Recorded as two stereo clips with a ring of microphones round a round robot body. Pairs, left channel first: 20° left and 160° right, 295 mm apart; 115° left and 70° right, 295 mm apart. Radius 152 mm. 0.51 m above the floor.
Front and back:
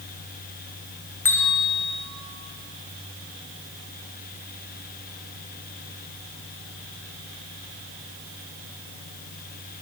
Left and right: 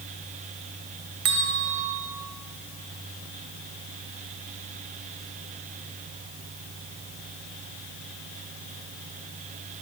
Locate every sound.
1.2 s a bell: 60° right, 1.8 m